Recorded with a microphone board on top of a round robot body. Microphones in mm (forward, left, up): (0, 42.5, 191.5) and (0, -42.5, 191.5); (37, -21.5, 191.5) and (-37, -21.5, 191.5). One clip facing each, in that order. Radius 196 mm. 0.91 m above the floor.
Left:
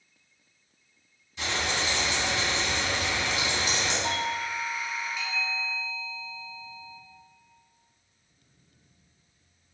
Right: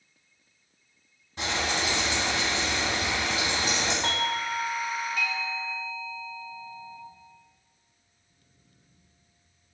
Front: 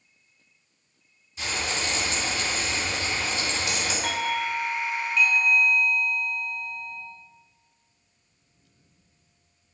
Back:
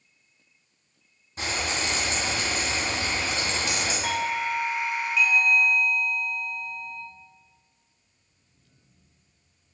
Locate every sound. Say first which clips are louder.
1.4 s frying: right 1 dB, back 1 dB; 135° right, 2.5 m
4.0 s a doorbell: right 1 dB, even; 95° right, 0.9 m